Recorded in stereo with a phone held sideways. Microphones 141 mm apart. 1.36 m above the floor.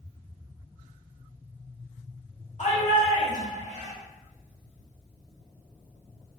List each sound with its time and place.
2.6 s a shout: 60° left (ahead or behind), 1.3 m